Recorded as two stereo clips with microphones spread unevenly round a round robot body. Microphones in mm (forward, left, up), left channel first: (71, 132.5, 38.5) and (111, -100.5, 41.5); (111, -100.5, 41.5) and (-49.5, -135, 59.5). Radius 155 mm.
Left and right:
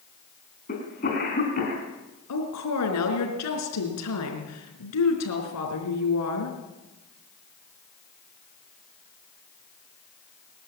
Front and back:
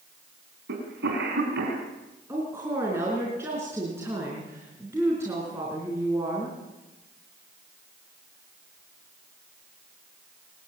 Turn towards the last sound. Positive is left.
turn(degrees=110)